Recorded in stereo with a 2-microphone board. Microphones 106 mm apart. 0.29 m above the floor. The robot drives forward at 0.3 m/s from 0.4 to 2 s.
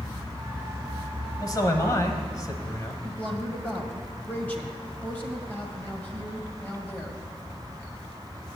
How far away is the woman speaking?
About 1.5 m.